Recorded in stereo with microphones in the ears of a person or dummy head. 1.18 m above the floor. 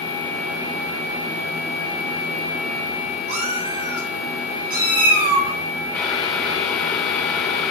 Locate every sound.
3.3 s a cat meowing: 35° right (ahead or behind), 4.5 m; by 5.5 s 55° right (ahead or behind), 6 m
5.9 s boiling: 10° left (ahead or behind), 1.1 m